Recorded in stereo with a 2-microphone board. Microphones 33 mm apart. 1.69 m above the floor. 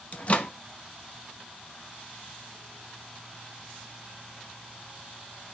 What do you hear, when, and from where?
0.1 s a microwave: 40° left (ahead or behind), 0.6 m